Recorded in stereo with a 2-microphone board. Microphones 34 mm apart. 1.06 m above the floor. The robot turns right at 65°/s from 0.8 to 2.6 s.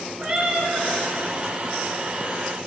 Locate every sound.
0.2 s a cat meowing: 30° right (ahead or behind), 3 m; by 0.9 s 25° right (ahead or behind), 3 m